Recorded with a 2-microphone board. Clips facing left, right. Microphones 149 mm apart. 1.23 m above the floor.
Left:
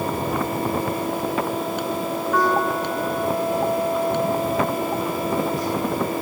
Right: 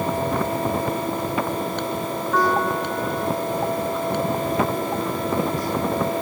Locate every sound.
2.3 s a piano: centre (ahead or behind)